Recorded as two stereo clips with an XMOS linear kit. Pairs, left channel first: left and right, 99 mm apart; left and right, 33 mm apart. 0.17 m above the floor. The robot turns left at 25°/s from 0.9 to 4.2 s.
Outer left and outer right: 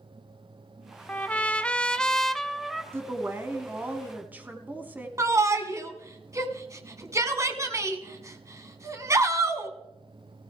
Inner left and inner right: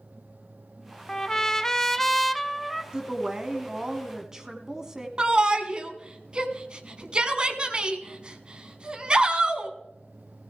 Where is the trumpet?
15° left (ahead or behind), 0.6 m; by 2.8 s centre (ahead or behind), 0.6 m.